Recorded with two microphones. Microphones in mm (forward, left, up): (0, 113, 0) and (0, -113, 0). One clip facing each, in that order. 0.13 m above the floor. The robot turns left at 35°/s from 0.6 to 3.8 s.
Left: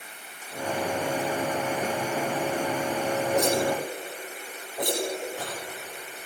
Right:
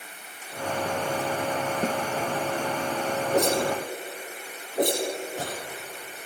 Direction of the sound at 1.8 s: 30° right (ahead or behind).